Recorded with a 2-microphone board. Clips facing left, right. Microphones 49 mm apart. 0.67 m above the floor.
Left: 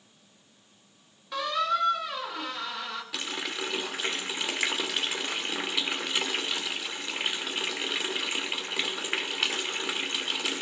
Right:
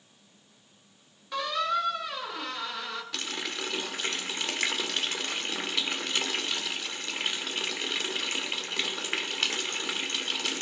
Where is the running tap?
10° left (ahead or behind), 1.3 m.